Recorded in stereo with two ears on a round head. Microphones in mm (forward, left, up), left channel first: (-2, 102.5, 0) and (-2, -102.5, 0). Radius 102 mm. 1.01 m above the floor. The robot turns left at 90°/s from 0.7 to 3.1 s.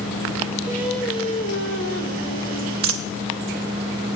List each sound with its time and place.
0.7 s singing: 160° right, 1.3 m; by 2.7 s 15° left, 1.3 m
2.8 s a dropped coin: 65° right (ahead or behind), 0.6 m; by 3.1 s 60° right (ahead or behind), 0.6 m